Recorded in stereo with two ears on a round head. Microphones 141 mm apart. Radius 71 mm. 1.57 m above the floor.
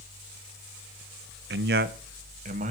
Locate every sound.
1.5 s a man speaking: 75° right (ahead or behind), 0.9 m; by 2.7 s 45° right (ahead or behind), 1.3 m